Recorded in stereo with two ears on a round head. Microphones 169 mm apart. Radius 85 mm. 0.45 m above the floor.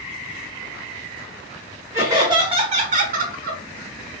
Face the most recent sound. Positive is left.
turn(degrees=-50)  # may be behind; listen again after turning